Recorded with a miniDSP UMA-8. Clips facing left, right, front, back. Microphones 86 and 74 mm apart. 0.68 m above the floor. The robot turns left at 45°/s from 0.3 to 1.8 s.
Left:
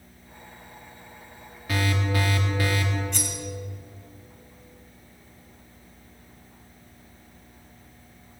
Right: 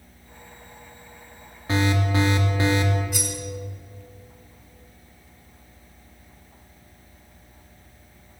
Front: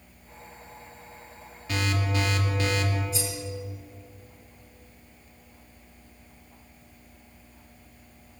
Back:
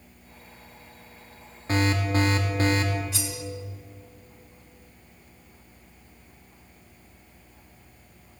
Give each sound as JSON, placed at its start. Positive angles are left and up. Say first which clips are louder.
{"t": 1.7, "sound": "an alarm", "louder": "right 4 dB, back 5 dB", "azimuth_deg": -140, "distance_m": 1.7}
{"t": 3.1, "sound": "cutlery clinking", "louder": "right 2 dB, front 2 dB", "azimuth_deg": -170, "distance_m": 2.0}